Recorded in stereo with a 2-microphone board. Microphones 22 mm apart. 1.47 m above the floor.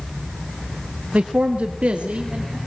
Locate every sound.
1.1 s a man speaking: 70° right (ahead or behind), 1.3 m